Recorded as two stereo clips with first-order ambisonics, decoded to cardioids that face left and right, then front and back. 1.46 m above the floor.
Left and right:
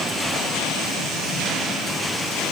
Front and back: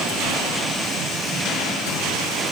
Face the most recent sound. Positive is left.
No sound to turn to.